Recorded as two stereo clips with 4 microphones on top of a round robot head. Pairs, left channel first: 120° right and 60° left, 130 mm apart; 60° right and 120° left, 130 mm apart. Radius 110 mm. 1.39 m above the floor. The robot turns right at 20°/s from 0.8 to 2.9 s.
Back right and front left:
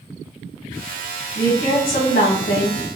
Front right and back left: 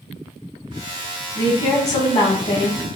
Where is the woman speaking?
130° right, 1.9 m; by 3.0 s 100° right, 1.9 m.